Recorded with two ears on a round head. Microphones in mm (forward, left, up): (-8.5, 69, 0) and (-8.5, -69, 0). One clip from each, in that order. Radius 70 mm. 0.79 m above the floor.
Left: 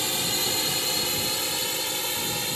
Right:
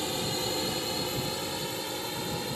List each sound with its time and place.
0.0 s a drone: 45° left (ahead or behind); by 2.5 s 55° left (ahead or behind)